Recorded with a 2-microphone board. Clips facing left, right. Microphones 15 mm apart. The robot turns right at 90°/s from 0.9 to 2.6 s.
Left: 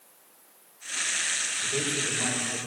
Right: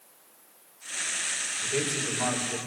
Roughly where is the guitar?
No guitar in this recording.